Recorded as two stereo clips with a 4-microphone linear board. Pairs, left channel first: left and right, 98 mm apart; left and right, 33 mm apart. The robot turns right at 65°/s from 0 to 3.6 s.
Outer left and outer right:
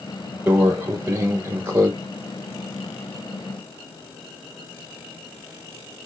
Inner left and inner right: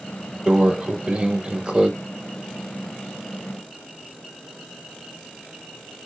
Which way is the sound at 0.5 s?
15° right (ahead or behind).